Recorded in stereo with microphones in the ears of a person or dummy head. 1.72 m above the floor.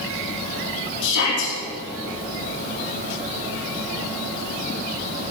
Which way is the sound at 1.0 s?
70° left (ahead or behind).